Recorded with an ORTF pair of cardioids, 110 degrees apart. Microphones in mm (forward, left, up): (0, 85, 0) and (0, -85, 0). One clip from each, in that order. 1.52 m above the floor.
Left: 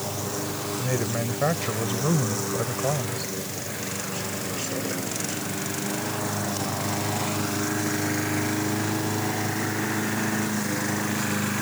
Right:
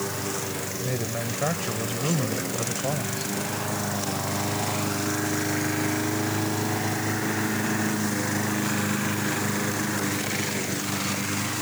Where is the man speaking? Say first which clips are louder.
Left 3 dB; 20° left.